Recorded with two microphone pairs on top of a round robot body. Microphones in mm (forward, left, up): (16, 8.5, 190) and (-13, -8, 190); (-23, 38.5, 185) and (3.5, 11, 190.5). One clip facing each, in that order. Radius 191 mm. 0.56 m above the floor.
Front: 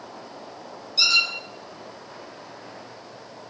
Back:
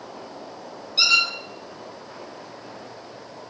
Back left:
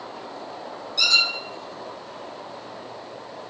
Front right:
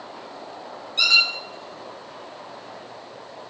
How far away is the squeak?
About 1.2 m.